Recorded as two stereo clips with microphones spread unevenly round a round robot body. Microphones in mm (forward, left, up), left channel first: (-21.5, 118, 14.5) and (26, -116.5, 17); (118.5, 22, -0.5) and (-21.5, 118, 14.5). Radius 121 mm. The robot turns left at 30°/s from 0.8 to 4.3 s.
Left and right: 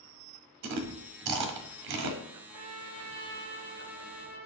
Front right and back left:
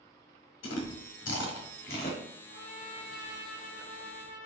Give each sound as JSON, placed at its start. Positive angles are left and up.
{"t": 0.6, "sound": "chewing", "azimuth_deg": -60, "distance_m": 0.5}
{"t": 2.5, "sound": "a trumpet", "azimuth_deg": 0, "distance_m": 1.5}